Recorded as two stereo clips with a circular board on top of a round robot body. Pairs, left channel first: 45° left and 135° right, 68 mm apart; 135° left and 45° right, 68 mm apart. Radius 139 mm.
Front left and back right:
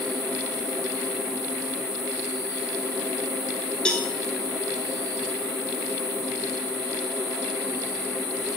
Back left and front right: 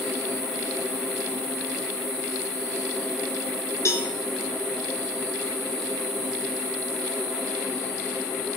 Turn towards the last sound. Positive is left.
turn(degrees=115)